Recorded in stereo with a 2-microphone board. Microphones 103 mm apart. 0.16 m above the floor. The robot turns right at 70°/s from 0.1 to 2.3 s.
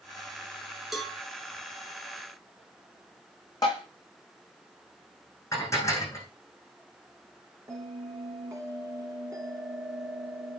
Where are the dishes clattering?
30° left (ahead or behind), 5 m.